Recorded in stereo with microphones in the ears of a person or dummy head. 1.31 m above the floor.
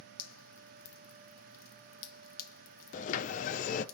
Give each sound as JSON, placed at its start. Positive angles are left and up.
{"t": 0.2, "sound": "dripping", "side_deg": 45, "distance_m": 0.9}
{"t": 2.9, "sound": "a sliding door", "side_deg": 40, "distance_m": 0.5}